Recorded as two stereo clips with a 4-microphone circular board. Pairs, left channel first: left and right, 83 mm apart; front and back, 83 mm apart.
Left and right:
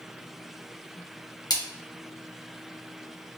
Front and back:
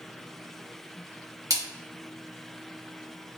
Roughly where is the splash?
Behind left.